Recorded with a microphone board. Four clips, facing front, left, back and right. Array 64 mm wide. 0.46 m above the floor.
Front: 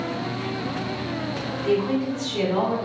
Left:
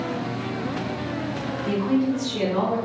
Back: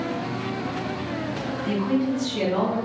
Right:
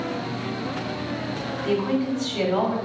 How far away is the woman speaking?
About 1.2 m.